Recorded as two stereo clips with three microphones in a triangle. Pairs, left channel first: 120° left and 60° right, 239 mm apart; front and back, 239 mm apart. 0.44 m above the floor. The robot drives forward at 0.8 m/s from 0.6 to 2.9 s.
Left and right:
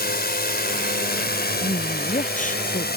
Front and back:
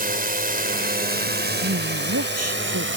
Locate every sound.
0.0 s a drone: 145° left; by 3.0 s 160° left
1.6 s a woman speaking: 175° left; by 3.0 s straight behind